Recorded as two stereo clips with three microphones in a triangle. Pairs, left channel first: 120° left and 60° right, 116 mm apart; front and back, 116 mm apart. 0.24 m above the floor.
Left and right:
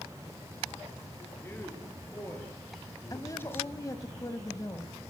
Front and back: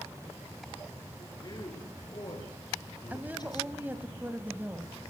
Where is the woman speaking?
120° left, 1.6 m.